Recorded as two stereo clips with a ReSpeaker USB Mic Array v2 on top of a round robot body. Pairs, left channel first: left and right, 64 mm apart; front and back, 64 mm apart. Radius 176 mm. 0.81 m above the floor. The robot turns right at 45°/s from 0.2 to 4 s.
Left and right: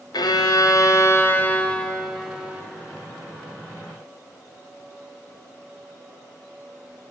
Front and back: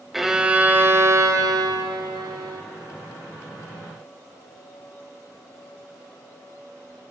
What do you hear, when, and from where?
0.1 s a violin: 95° left, 0.6 m; by 2.6 s 155° right, 0.6 m